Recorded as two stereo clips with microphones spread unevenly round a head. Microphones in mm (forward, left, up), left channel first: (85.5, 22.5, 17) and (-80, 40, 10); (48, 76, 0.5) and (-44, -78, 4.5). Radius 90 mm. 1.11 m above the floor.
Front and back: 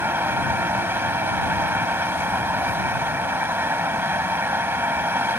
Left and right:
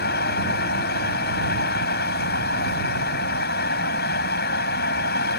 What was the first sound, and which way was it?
A fan, 95° left.